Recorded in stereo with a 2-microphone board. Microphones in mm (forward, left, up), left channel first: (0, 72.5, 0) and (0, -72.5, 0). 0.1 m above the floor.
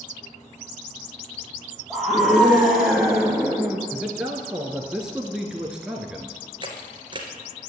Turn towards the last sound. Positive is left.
turn(degrees=-35)  # may be behind; listen again after turning